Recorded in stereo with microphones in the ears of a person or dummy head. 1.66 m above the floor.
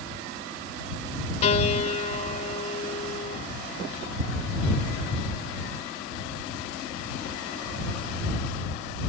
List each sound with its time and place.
1.4 s a piano: 40° left (ahead or behind)